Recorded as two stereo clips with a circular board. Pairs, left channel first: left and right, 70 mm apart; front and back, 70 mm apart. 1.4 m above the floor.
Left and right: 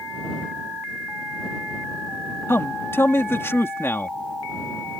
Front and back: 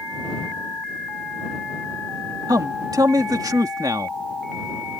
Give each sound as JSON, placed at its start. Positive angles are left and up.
{"t": 2.5, "sound": "a man speaking", "azimuth_deg": 145}